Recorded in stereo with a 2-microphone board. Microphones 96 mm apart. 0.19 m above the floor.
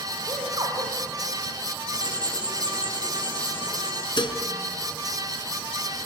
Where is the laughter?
45° right (ahead or behind), 6 m.